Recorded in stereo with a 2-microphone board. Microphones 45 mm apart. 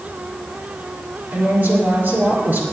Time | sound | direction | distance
1.3 | a woman speaking | 50° right (ahead or behind) | 4.5 m